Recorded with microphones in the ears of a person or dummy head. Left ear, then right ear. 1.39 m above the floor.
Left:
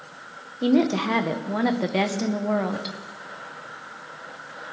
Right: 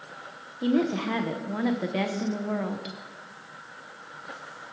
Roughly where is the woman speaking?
Centre.